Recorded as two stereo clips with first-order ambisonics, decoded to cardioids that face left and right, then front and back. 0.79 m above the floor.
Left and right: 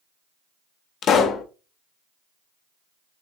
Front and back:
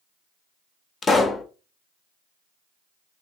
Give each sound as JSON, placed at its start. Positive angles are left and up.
{"t": 1.0, "sound": "a pop", "azimuth_deg": 60, "distance_m": 0.5}